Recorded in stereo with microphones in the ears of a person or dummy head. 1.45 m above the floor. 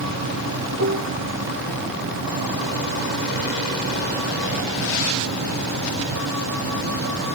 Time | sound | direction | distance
0.8 | dishes clattering | 50° right (ahead or behind) | ?